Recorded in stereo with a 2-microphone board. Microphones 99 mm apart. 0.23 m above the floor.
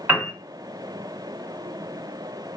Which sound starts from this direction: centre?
A piano, at 0.1 s.